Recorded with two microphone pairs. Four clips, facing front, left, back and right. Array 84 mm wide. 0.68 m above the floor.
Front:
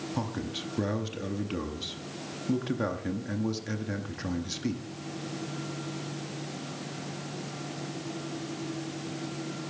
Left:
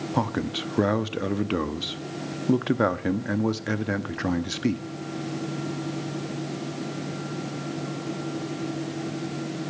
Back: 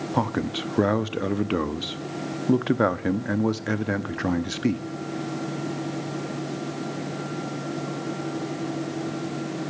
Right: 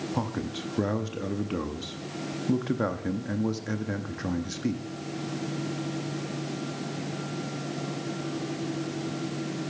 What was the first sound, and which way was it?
A man speaking, 135° left.